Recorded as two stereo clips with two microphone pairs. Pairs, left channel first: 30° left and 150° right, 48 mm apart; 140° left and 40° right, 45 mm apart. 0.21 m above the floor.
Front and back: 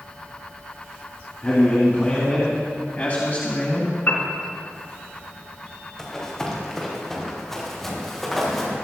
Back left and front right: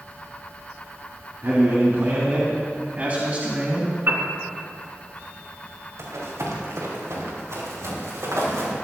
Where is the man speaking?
30° right, 3 m; by 4.0 s 10° left, 1.8 m.